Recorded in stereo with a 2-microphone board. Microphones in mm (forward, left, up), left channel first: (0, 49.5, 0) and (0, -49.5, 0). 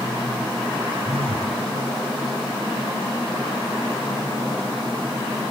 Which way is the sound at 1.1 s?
85° right.